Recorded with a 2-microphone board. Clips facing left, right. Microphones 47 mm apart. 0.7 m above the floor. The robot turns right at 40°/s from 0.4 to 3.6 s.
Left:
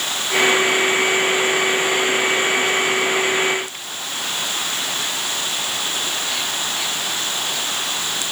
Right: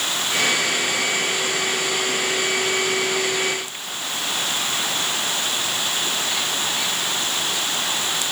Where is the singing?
No singing in this recording.